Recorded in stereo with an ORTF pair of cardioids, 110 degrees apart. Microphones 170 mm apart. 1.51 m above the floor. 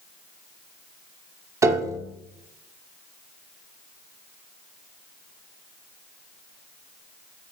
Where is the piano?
15° right, 0.7 m.